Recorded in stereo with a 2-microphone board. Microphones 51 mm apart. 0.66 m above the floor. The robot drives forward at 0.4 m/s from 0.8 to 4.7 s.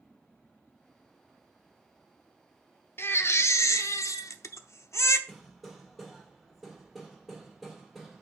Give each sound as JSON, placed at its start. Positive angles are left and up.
{"t": 3.0, "sound": "a baby crying", "side_deg": 50, "distance_m": 0.7}
{"t": 5.3, "sound": "hammering", "side_deg": -5, "distance_m": 2.0}